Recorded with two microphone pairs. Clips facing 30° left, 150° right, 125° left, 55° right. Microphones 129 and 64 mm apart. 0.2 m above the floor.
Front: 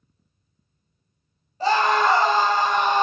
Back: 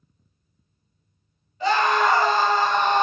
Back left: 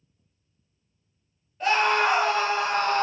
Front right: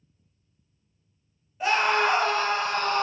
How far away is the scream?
About 1.1 m.